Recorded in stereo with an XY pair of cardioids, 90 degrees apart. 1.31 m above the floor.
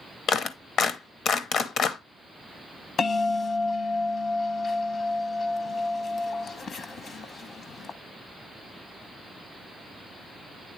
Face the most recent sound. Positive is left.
turn(degrees=60)